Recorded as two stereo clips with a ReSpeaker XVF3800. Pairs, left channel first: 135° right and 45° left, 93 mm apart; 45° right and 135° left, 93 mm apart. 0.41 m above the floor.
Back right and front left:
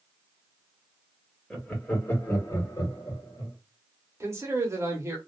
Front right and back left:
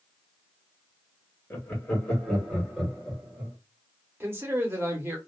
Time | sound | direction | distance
1.5 | laughter | 60° right | 1.1 m
4.2 | a man speaking | 85° left | 1.0 m